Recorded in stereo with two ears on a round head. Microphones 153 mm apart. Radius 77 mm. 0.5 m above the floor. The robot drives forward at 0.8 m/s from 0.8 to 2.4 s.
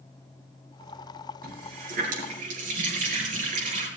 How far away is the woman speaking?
I don't hear a woman speaking.